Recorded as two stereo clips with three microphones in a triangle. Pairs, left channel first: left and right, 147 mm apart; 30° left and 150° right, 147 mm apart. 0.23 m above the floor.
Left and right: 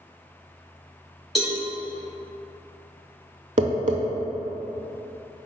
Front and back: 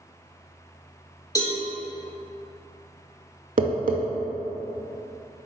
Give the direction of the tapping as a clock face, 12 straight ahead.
4 o'clock.